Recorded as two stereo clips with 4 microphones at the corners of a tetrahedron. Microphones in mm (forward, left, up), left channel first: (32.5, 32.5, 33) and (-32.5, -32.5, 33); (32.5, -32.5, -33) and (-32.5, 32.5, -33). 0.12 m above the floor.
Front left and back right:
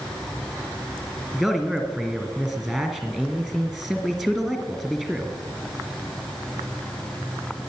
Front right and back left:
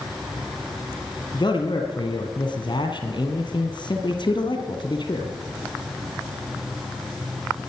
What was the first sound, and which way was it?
A man speaking, 50° right.